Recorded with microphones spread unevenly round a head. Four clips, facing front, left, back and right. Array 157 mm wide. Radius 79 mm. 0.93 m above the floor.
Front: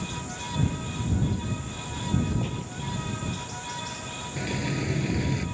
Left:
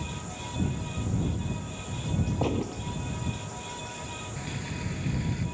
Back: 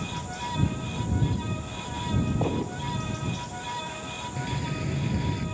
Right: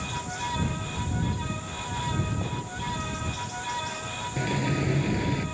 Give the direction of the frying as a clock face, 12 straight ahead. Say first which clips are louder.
Right 12 dB, front 3 dB; 2 o'clock.